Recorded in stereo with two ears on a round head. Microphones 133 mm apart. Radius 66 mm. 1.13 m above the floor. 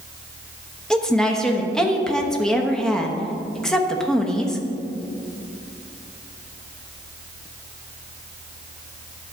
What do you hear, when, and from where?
0.9 s a woman speaking: 5° left (ahead or behind), 1.0 m